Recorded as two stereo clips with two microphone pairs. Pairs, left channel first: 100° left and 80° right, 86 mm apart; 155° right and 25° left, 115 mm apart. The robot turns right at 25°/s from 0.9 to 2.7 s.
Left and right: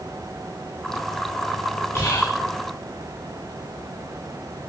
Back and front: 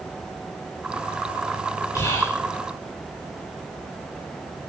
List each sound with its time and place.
1.9 s whispering: 150° left, 2.5 m; by 2.4 s 165° left, 2.5 m